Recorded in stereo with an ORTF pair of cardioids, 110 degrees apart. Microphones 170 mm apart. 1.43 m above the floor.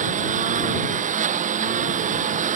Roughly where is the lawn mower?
Ahead right.